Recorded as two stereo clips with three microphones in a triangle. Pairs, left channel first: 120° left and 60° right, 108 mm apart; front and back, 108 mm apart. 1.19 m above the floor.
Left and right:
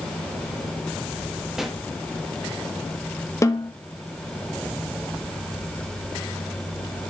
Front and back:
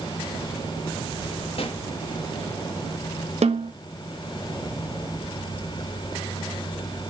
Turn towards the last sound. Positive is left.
turn(degrees=180)